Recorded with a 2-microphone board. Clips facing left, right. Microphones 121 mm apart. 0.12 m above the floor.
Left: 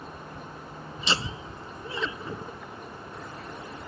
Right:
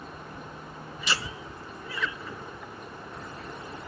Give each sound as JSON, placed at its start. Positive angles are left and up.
{"t": 1.0, "sound": "laughter", "side_deg": 25}